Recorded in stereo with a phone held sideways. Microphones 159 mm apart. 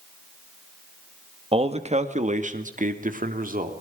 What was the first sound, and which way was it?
A man speaking, 35° right (ahead or behind).